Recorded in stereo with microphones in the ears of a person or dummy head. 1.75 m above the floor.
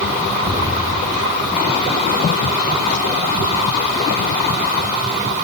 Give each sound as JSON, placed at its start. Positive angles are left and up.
{"t": 0.4, "sound": "an explosion", "side_deg": -50, "distance_m": 5.5}